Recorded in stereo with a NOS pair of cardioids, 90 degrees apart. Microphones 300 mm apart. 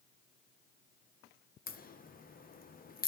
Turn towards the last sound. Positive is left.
turn(degrees=30)